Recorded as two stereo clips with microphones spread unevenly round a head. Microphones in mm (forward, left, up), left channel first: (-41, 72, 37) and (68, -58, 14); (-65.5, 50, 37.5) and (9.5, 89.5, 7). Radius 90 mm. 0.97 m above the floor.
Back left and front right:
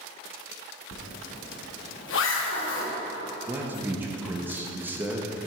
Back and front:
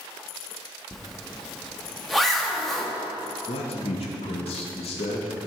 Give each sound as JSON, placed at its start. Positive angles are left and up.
{"t": 0.9, "sound": "a zipper", "azimuth_deg": 120, "distance_m": 1.2}
{"t": 3.5, "sound": "a man speaking", "azimuth_deg": -125, "distance_m": 1.0}